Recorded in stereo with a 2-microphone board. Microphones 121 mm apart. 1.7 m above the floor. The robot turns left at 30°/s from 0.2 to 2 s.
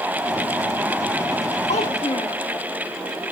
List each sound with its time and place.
1.7 s a child speaking: 65° left (ahead or behind), 2 m